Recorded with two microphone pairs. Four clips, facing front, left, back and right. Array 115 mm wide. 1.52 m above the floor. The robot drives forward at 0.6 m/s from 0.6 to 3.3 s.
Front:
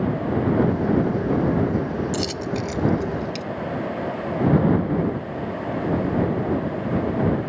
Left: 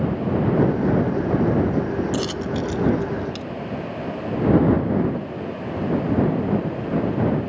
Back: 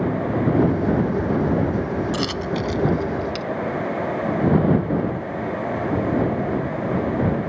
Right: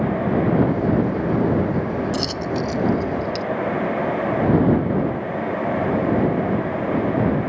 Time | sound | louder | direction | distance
2.1 | a dropped coin | right 1 dB, back 2 dB | 175° right | ?